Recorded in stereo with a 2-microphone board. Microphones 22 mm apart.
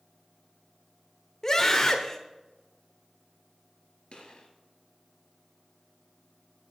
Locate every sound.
1.4 s a scream: 20° left (ahead or behind), 1.0 m
4.1 s a gunshot: 50° left (ahead or behind), 2.5 m